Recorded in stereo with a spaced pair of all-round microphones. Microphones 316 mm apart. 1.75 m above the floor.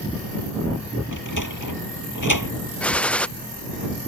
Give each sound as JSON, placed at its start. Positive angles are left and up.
{"t": 1.1, "sound": "a sliding door", "side_deg": 70}
{"t": 2.8, "sound": "a gunshot", "side_deg": 5}